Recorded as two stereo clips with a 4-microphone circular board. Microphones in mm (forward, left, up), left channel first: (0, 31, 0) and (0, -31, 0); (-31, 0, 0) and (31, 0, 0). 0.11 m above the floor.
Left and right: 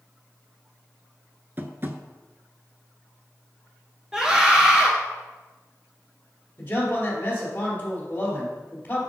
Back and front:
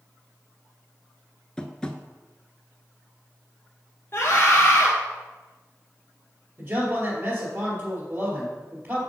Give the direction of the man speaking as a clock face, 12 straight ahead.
11 o'clock.